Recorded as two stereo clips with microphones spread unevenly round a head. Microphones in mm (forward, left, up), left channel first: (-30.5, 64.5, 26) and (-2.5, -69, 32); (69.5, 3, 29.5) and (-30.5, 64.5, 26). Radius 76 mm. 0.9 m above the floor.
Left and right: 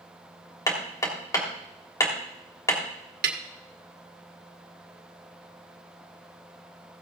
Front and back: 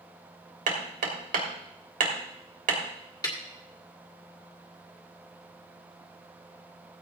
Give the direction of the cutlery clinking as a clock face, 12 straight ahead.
No cutlery clinking in this recording.